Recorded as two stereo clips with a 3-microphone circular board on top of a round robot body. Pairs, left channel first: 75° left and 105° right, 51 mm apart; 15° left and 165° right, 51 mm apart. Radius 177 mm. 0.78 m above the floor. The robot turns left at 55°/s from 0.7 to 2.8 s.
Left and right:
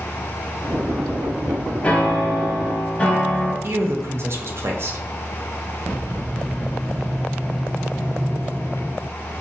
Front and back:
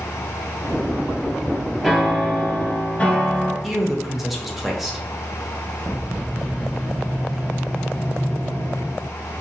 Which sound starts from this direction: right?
A man speaking, at 3.6 s.